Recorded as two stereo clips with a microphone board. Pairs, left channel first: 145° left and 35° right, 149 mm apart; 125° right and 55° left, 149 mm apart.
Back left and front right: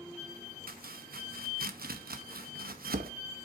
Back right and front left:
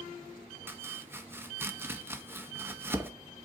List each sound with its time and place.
0.7 s chopping: 20° right, 0.8 m